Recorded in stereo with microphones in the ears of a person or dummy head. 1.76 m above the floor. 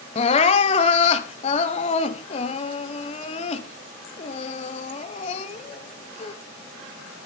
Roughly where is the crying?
Left.